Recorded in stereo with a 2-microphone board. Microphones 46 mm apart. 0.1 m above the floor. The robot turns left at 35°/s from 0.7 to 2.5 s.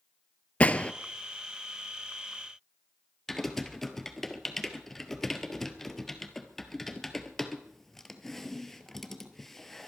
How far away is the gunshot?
About 0.6 m.